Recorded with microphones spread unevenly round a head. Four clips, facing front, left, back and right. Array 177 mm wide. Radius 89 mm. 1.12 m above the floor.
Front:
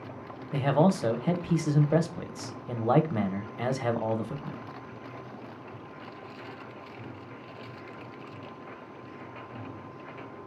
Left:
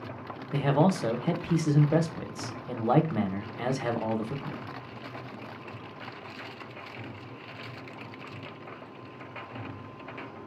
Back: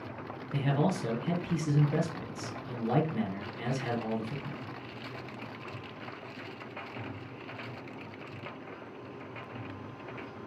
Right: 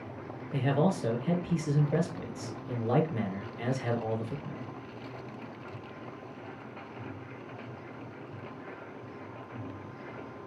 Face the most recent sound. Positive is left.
turn(degrees=35)